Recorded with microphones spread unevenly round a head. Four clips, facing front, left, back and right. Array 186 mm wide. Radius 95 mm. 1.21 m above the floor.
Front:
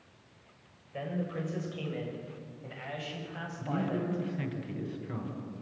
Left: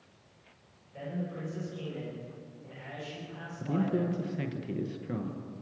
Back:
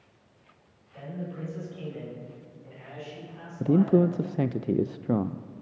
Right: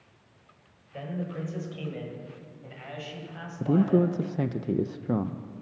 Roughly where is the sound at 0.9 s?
Ahead right.